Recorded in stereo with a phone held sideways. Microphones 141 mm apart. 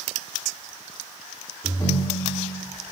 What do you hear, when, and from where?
1.6 s a ringtone: 25° left (ahead or behind), 1.3 m